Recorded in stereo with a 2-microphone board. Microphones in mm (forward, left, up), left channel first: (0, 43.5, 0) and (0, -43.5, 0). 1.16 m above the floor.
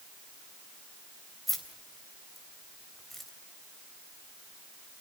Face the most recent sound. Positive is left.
turn(degrees=0)  # may be behind; listen again after turning